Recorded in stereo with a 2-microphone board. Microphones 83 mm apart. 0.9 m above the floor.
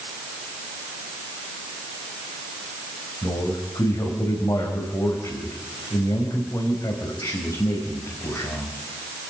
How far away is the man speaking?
About 5.5 m.